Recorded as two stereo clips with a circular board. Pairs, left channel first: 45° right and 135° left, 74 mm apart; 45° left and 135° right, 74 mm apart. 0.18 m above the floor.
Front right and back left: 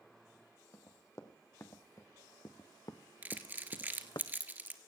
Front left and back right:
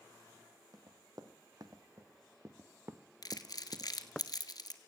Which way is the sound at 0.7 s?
100° right.